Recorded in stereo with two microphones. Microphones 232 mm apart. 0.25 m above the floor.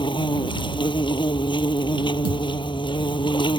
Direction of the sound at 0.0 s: 20° left (ahead or behind).